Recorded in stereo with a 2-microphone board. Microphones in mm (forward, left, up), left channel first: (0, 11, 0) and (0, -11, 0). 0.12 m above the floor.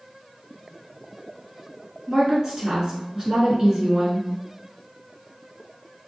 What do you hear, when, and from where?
2.1 s a woman speaking: 25° right (ahead or behind), 1.3 m